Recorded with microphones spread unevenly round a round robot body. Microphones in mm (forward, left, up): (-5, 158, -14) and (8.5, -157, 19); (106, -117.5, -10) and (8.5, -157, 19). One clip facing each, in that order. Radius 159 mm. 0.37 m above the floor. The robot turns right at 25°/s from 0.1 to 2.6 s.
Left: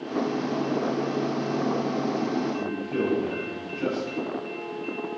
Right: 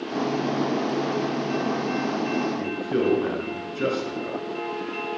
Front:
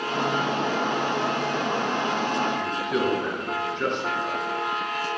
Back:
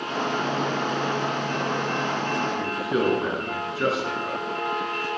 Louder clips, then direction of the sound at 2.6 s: Right 2 dB, back 1 dB; 75° right.